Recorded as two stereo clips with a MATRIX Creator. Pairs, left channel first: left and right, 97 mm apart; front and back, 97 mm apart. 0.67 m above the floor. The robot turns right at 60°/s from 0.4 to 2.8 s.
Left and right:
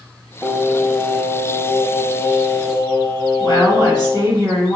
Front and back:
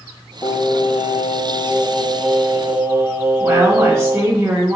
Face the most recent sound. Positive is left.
turn(degrees=110)